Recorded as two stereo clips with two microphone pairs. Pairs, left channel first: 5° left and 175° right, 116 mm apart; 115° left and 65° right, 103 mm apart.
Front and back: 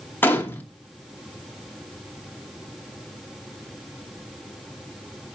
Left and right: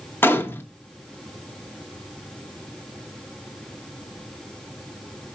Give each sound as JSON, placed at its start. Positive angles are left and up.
{"t": 0.2, "sound": "a gunshot", "azimuth_deg": 65, "distance_m": 1.0}